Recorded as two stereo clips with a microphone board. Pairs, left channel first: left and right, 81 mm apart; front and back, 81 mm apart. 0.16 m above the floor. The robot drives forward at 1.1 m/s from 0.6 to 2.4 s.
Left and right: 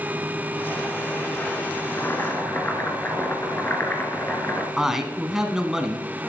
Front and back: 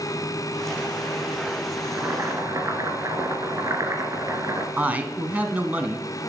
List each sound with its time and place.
1.8 s boiling: 125° left, 1.5 m; by 4.7 s 145° left, 1.9 m
4.8 s a man speaking: 165° right, 1.1 m